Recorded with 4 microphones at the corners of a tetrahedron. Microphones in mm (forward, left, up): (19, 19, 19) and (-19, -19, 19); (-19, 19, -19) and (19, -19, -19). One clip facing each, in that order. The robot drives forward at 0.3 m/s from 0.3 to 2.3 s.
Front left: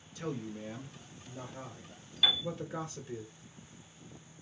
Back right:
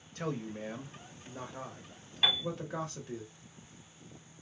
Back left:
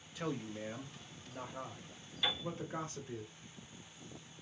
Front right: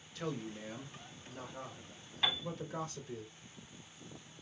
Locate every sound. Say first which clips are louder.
0.1 s a man speaking: back right 2 dB, back left 1 dB; 150° right, 0.8 m; by 3.2 s 165° right, 1.3 m
2.2 s a piano: even, front right 2 dB; 95° right, 1.3 m